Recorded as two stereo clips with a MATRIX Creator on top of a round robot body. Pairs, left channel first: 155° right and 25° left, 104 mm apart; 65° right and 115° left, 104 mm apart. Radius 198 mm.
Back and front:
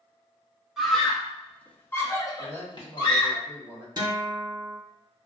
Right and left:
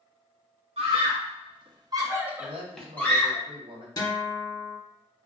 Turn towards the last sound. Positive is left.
turn(degrees=-20)